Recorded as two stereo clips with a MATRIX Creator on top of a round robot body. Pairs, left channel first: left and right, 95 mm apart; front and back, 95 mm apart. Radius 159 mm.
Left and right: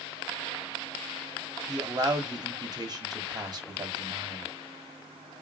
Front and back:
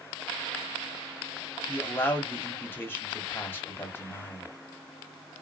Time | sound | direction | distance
1.7 | a man speaking | 60° right | 1.2 m